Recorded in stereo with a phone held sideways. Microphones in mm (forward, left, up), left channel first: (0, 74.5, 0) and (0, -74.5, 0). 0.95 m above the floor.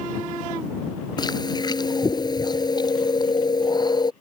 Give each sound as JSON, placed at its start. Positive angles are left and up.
{"t": 1.2, "sound": "chewing", "side_deg": 30}